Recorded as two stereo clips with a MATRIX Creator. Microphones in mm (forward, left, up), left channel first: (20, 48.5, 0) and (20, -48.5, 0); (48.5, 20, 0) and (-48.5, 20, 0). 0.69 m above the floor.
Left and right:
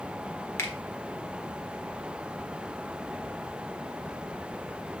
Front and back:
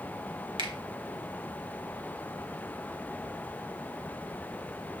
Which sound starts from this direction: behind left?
A finger snap, at 0.6 s.